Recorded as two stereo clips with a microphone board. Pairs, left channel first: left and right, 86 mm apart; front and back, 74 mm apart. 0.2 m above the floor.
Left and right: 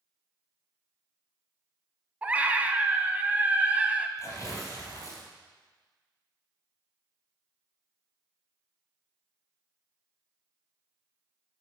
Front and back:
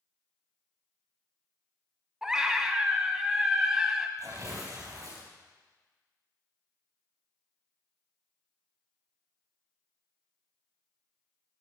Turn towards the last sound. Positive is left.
turn(degrees=140)